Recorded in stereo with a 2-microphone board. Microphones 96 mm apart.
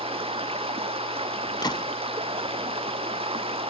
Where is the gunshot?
50° left (ahead or behind).